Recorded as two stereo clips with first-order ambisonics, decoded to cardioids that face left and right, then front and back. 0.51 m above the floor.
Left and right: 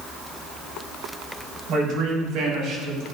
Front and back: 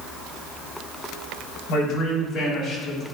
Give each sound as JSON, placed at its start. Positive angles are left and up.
{"t": 1.7, "sound": "a man speaking", "azimuth_deg": -55, "distance_m": 2.5}